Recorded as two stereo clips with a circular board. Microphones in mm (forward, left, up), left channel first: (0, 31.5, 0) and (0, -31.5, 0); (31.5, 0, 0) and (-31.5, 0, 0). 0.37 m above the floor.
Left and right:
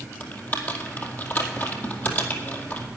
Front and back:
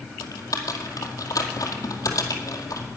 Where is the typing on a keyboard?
30° left, 2 m.